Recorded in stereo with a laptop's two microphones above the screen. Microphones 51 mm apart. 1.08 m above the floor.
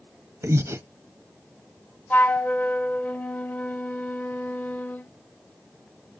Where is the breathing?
65° right (ahead or behind), 1.0 m.